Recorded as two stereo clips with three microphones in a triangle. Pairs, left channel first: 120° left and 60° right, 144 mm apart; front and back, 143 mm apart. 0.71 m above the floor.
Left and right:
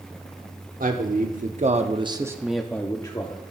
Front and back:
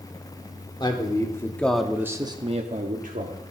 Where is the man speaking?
60° right, 1.6 m; by 3.4 s 175° left, 1.4 m.